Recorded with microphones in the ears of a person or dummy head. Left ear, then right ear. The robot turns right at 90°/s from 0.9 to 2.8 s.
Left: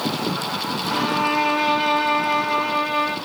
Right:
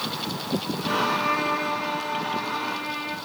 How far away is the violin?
About 1.1 m.